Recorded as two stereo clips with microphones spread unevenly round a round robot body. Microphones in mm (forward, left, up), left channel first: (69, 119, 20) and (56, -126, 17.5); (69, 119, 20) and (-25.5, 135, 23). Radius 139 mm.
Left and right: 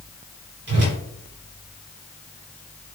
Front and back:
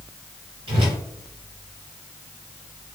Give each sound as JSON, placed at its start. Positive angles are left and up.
{"t": 0.7, "sound": "a whoosh", "azimuth_deg": -145, "distance_m": 2.0}